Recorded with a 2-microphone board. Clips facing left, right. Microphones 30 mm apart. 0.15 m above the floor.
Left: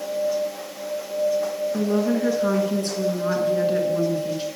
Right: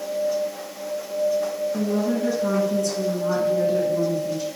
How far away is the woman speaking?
About 2 m.